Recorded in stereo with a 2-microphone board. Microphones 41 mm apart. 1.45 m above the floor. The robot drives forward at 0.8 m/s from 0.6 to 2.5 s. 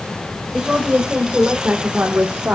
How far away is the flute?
No flute in this recording.